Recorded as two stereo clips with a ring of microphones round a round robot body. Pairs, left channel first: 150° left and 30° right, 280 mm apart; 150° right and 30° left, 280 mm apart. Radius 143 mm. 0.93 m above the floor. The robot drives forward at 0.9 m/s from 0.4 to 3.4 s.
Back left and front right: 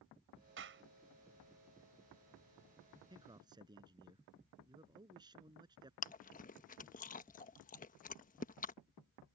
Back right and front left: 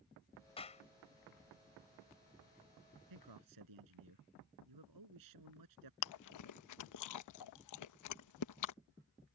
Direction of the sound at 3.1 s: 45° left.